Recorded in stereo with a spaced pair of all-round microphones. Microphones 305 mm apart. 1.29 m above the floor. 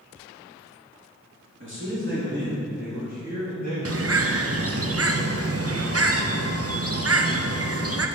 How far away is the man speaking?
About 2.5 m.